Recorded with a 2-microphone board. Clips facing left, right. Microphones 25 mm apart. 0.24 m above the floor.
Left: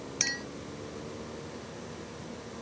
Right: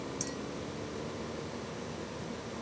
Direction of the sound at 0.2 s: 60° left (ahead or behind).